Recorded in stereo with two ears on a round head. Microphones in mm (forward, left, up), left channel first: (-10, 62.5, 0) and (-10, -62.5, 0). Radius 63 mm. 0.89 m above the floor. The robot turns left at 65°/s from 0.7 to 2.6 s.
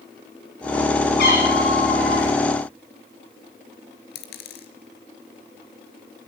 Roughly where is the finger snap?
I don't hear a finger snap.